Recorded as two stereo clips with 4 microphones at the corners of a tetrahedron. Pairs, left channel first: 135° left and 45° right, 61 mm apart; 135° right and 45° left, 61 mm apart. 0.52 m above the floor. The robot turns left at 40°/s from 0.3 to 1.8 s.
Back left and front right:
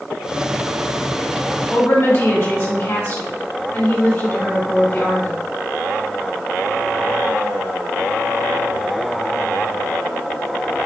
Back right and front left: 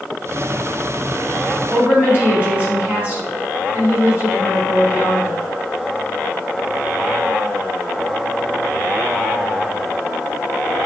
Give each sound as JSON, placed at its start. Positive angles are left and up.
{"t": 1.7, "sound": "a woman speaking", "azimuth_deg": 105, "distance_m": 2.0}